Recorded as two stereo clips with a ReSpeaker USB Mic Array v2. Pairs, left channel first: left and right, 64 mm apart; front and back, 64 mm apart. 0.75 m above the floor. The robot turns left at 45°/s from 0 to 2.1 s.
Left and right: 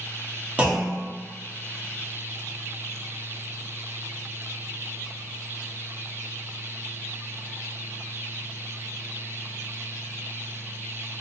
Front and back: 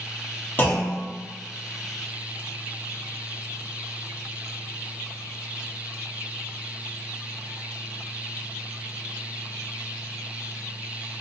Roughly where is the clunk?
Ahead right.